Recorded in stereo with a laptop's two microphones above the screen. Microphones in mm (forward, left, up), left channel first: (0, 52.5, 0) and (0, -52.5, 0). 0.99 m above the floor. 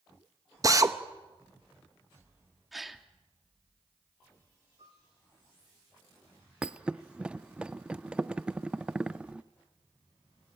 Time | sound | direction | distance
0.6 | a drill | 35° right (ahead or behind) | 0.8 m
2.7 | a gasp | centre (ahead or behind) | 1.5 m
4.8 | a piano | 80° right | 7 m
6.6 | a thud | 10° right (ahead or behind) | 0.6 m